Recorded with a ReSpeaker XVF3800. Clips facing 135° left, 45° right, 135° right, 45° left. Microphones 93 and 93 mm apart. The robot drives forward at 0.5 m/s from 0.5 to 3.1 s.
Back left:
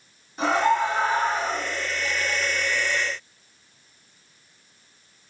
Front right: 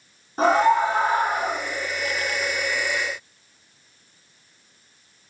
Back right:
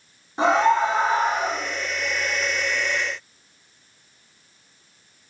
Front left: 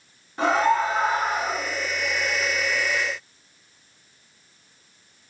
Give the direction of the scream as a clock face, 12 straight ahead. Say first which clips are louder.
Front right 3 dB, back right 2 dB; 2 o'clock.